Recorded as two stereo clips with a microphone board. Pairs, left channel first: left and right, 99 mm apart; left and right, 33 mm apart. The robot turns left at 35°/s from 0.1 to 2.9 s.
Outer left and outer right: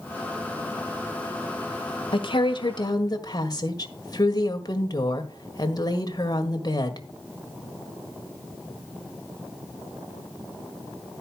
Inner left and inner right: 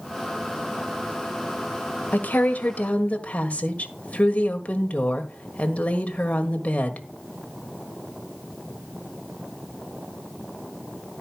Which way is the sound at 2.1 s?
65° left (ahead or behind).